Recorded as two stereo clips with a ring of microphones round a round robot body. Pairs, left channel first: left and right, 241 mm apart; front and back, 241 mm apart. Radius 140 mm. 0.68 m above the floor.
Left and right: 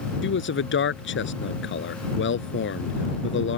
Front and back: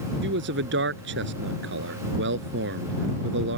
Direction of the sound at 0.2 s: 130° left.